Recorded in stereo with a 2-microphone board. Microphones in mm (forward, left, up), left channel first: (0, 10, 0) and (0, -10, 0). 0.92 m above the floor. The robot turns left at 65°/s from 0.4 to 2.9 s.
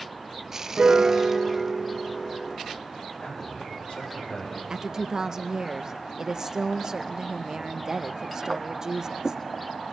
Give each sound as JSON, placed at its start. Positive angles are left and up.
{"t": 0.8, "sound": "a piano", "azimuth_deg": -90, "distance_m": 0.6}
{"t": 3.2, "sound": "a man speaking", "side_deg": 75, "distance_m": 6.0}
{"t": 4.7, "sound": "a woman speaking", "side_deg": -35, "distance_m": 0.5}